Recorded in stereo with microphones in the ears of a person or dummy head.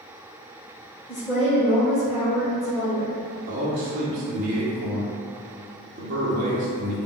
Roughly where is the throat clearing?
No throat clearing in this recording.